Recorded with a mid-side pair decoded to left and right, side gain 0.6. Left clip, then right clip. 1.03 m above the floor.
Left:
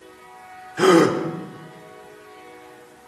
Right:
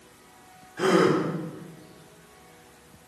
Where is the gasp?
45° left, 3.5 m.